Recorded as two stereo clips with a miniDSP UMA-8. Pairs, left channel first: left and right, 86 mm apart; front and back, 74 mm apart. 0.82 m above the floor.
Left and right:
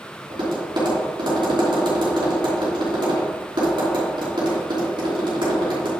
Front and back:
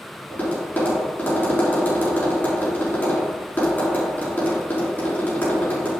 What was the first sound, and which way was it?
Tapping, 65° right.